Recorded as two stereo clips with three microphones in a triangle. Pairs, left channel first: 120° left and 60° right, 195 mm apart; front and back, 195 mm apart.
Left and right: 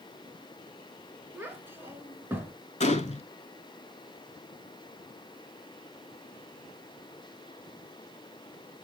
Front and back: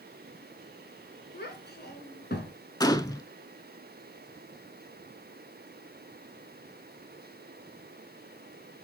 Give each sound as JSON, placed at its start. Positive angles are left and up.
{"t": 1.3, "sound": "a child speaking", "azimuth_deg": 15, "distance_m": 1.4}
{"t": 2.8, "sound": "a gunshot", "azimuth_deg": 70, "distance_m": 0.5}